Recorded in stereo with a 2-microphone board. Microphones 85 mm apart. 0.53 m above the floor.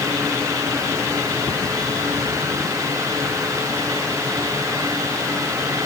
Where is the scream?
I don't hear a scream.